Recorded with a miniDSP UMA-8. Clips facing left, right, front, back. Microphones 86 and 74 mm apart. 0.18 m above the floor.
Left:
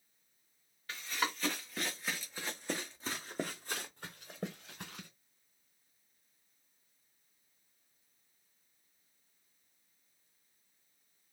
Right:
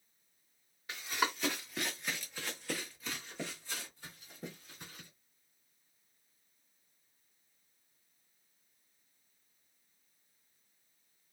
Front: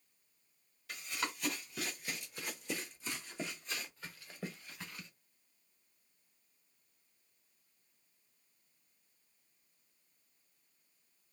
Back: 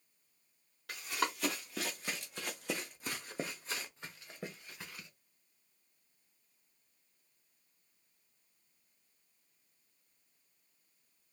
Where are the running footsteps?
165° right, 1.5 m; by 5.1 s 95° left, 1.4 m.